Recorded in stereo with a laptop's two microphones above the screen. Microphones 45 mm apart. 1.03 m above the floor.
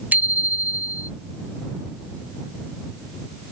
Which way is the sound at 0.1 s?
40° right (ahead or behind).